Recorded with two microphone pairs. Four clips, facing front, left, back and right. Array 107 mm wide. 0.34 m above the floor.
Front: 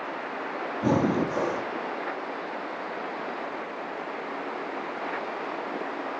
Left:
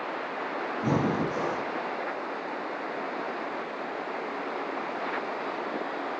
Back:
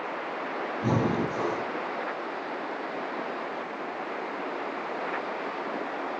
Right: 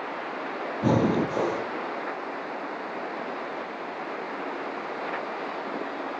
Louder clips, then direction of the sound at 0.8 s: Right 4 dB, front 3 dB; 70° right.